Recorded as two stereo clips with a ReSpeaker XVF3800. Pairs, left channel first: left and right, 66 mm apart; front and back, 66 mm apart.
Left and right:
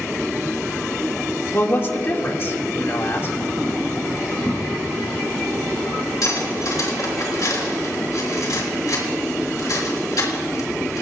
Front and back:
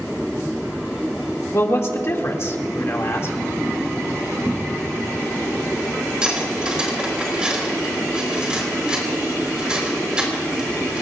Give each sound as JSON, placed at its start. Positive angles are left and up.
{"t": 1.5, "sound": "a man speaking", "azimuth_deg": 40, "distance_m": 2.0}
{"t": 4.5, "sound": "a cupboard door", "azimuth_deg": 95, "distance_m": 1.0}
{"t": 6.2, "sound": "cutlery clinking", "azimuth_deg": 105, "distance_m": 3.5}